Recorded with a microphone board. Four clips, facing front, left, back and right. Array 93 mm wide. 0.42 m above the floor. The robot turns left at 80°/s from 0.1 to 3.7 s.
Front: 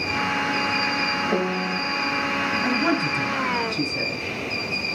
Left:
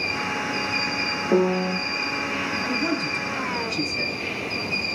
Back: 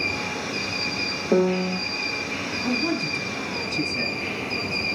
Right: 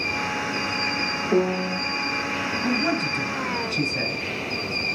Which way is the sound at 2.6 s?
10° left.